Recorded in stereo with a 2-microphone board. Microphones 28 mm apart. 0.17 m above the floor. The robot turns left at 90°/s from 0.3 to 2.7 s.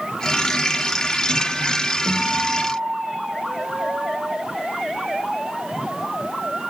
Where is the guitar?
5° left, 6.5 m; by 4.3 s 55° right, 6.5 m.